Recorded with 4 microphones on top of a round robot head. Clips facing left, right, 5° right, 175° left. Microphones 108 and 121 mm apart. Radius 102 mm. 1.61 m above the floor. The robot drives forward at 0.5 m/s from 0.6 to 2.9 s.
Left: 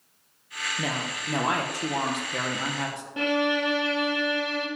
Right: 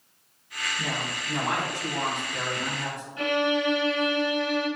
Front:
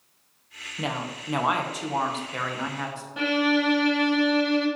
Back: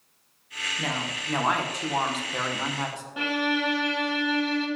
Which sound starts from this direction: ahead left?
A woman speaking, at 0.8 s.